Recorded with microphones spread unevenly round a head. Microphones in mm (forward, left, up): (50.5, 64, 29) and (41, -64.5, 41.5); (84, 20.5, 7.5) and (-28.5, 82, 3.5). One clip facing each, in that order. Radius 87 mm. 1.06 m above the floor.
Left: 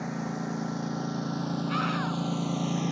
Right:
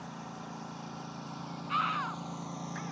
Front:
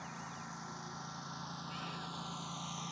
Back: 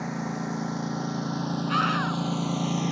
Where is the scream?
150° left.